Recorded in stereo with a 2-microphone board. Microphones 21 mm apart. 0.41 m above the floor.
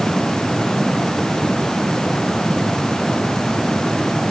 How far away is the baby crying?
No baby crying in this recording.